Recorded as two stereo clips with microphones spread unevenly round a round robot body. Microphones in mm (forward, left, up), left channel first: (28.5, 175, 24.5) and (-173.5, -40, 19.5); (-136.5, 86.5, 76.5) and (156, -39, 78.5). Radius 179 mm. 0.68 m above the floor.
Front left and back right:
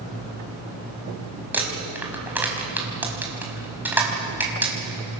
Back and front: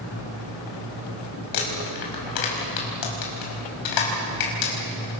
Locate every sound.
1.5 s crumpling: 145° left, 5 m